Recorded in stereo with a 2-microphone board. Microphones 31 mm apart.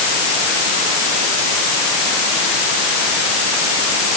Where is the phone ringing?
No phone ringing in this recording.